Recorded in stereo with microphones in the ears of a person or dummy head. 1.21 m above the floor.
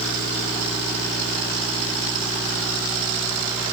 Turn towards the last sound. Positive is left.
No sound to turn to.